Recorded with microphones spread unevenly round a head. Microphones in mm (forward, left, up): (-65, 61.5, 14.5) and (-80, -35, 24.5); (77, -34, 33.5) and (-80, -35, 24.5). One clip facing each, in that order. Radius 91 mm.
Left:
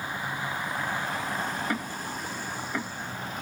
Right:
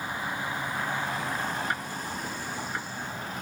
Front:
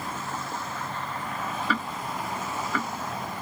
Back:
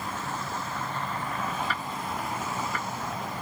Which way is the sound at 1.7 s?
30° left.